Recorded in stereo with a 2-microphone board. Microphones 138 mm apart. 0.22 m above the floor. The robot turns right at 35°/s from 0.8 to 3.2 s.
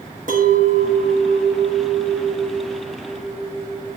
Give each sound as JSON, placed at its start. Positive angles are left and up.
{"t": 0.3, "sound": "a clink", "azimuth_deg": -85, "distance_m": 1.7}